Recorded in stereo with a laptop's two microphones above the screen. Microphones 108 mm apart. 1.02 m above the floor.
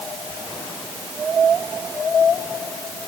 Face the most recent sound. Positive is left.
No sound to turn to.